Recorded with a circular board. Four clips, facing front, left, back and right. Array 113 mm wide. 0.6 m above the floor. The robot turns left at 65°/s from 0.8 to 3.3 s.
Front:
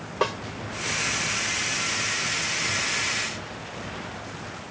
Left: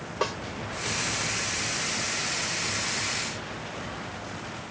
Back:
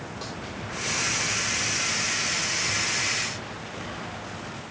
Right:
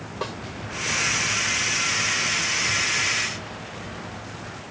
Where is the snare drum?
10° left.